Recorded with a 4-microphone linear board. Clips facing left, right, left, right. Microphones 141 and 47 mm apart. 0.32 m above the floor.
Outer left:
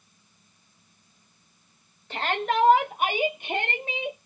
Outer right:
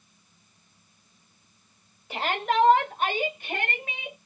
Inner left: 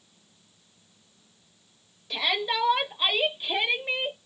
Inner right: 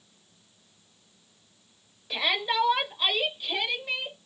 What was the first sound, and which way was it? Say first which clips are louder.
A shout: even, even; 10° right (ahead or behind).